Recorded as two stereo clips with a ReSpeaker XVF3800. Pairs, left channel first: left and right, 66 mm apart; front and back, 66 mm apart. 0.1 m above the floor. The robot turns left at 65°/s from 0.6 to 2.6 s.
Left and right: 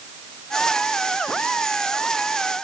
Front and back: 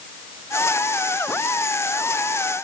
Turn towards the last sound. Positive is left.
No sound to turn to.